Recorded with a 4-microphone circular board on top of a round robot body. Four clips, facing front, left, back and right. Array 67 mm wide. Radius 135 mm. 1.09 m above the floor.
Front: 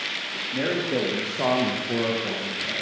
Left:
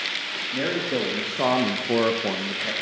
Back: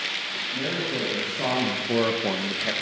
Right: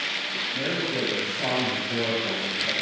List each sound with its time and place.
0.5 s a man speaking: 50° left, 2.5 m; by 2.7 s 160° left, 1.4 m